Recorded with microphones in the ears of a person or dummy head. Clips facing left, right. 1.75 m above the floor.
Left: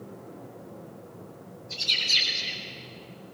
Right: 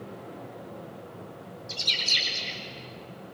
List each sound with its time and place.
1.7 s a bird: 80° right, 4.5 m